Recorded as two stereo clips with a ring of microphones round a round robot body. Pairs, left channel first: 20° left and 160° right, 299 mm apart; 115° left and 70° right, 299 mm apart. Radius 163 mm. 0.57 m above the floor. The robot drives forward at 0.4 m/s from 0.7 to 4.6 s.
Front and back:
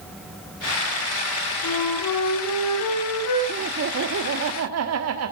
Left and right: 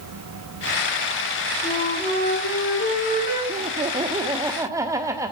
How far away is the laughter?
About 1.2 m.